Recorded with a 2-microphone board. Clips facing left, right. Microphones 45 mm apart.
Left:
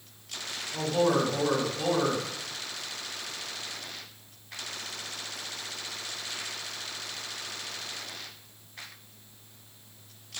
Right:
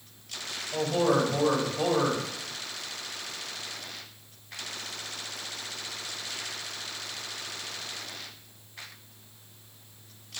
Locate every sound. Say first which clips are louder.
0.7 s a man speaking: right 1 dB; 55° right (ahead or behind), 2.5 m